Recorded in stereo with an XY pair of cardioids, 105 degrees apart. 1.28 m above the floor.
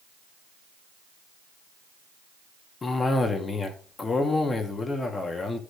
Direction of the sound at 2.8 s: 30° left.